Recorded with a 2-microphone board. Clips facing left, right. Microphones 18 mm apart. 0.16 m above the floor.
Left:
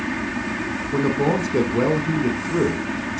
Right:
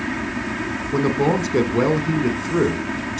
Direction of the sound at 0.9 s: 25° right (ahead or behind).